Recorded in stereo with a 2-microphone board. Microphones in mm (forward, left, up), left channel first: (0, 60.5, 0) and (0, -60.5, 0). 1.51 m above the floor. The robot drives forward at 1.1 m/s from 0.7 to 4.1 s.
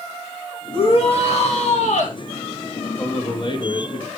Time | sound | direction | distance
0.7 | a shout | 50° left (ahead or behind) | 3 m
3.0 | a man speaking | 35° left (ahead or behind) | 3 m